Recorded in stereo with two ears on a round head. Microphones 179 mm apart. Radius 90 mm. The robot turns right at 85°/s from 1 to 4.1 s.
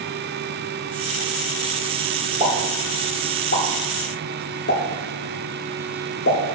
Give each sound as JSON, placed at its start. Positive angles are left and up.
{"t": 2.4, "sound": "a pop", "side_deg": -35, "distance_m": 2.0}